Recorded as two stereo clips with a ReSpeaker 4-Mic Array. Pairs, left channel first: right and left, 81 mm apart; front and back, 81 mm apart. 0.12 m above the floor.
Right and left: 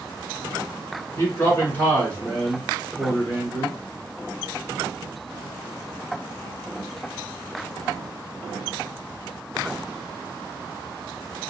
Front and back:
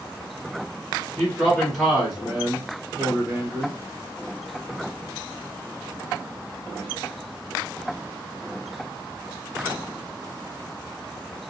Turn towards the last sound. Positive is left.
turn(degrees=180)